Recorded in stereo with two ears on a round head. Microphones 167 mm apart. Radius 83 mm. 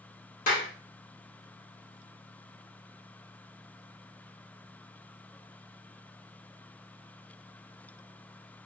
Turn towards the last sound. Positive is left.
turn(degrees=45)  # may be behind; listen again after turning